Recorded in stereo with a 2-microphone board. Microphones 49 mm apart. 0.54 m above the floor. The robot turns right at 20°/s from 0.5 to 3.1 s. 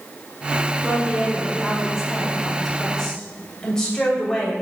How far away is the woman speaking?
About 2.5 m.